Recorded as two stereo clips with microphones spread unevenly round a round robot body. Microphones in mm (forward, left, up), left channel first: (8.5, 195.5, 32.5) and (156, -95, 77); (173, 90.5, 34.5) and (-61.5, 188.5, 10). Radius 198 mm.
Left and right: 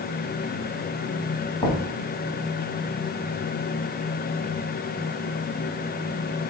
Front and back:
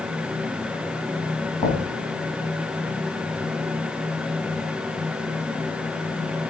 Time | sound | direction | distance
1.6 | knocking | 45° left | 2 m